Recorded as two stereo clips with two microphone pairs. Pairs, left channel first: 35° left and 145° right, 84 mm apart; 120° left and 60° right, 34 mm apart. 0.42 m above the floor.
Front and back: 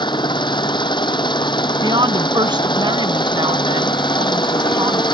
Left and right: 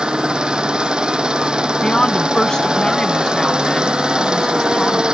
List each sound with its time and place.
0.0 s an engine running: 5° left
1.8 s a woman speaking: 170° right